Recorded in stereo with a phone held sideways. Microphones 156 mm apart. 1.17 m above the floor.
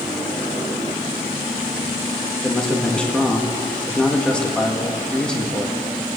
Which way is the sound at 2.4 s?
5° left (ahead or behind).